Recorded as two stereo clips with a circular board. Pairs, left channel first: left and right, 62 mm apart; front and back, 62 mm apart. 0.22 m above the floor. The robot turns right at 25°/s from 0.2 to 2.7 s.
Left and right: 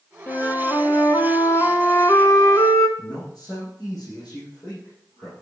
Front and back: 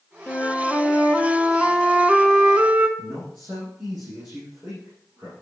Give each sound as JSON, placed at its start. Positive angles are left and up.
{"t": 0.3, "sound": "a flute", "azimuth_deg": 55, "distance_m": 1.4}
{"t": 3.0, "sound": "a man speaking", "azimuth_deg": 115, "distance_m": 6.5}